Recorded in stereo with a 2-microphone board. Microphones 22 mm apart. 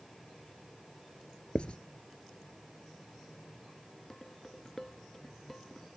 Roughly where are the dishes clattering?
Centre.